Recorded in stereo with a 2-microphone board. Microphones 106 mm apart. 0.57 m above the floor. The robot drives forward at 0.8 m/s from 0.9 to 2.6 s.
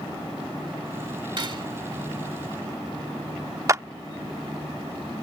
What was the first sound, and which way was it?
Cutlery clinking, 45° right (ahead or behind).